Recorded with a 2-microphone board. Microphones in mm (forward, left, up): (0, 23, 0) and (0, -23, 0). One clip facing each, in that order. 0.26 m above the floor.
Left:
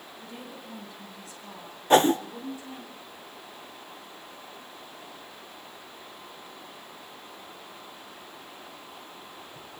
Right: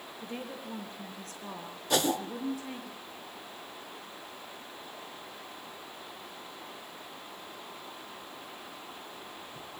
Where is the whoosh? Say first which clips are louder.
Left 9 dB; 35° left (ahead or behind), 0.7 m.